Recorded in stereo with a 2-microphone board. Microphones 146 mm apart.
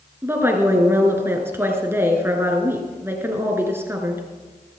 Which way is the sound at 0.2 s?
15° right (ahead or behind).